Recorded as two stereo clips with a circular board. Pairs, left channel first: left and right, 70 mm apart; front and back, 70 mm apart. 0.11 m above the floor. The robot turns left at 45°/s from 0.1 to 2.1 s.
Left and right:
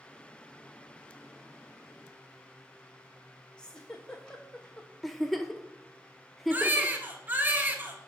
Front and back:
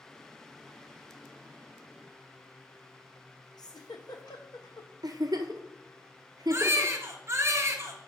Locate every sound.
3.6 s a giggle: 15° left, 1.0 m
5.0 s a giggle: straight behind, 0.6 m
6.5 s a baby crying: 145° right, 0.7 m